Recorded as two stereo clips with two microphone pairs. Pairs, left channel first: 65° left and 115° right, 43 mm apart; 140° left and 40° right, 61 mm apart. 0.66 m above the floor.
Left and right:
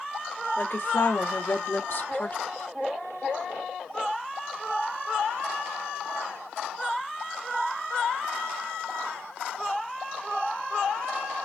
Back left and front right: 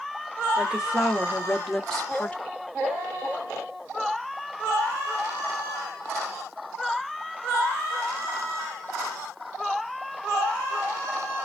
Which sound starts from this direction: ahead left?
A woman speaking, at 0.6 s.